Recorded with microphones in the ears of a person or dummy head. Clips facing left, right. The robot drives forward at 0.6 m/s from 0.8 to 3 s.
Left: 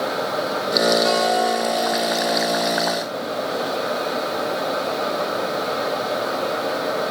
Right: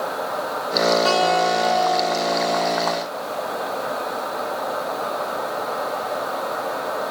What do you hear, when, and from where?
1.1 s a guitar: 50° right (ahead or behind), 2.5 m; by 2.7 s 40° right (ahead or behind), 3 m